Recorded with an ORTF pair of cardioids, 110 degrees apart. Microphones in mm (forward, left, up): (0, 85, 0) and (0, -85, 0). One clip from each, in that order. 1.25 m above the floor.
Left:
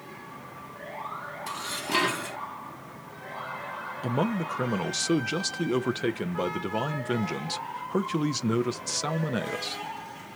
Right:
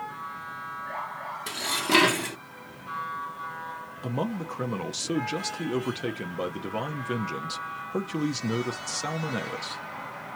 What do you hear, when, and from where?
1.5 s dishes clattering: 35° right, 0.8 m
4.0 s a man speaking: 10° left, 0.8 m